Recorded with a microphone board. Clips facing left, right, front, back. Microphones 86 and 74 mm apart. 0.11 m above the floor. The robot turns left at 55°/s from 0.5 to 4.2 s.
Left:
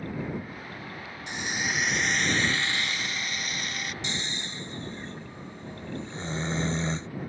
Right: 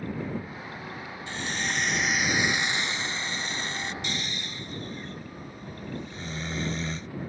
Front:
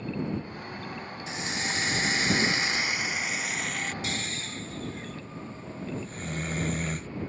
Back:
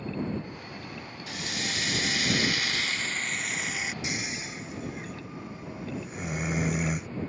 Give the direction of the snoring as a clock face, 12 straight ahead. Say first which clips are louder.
Even, even; 8 o'clock.